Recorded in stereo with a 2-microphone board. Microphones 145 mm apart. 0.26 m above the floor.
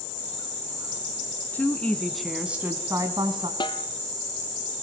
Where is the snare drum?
35° left (ahead or behind), 1.1 m.